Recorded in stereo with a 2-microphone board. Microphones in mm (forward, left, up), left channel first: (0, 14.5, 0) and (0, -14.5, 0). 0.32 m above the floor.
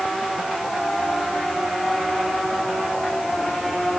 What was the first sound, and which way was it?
Only background noise.